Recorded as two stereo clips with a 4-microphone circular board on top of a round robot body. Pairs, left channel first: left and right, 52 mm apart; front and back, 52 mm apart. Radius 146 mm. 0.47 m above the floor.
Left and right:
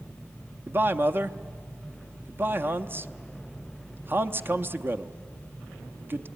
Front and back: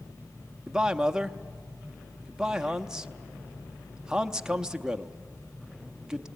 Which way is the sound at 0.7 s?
105° right.